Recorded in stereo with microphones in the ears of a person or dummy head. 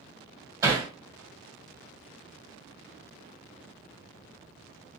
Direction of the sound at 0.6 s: 25° right (ahead or behind).